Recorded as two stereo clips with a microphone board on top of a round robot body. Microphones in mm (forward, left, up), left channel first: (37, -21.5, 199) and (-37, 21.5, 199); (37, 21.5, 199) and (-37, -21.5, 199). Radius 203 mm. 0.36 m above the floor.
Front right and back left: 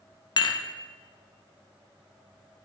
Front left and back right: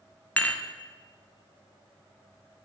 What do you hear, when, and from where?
0.4 s dishes clattering: 40° right, 0.7 m